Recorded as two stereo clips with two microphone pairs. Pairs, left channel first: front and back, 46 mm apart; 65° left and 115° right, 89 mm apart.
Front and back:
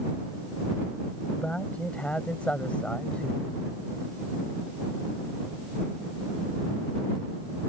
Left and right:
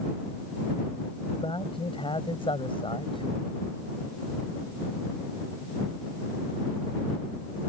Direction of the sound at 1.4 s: 65° left.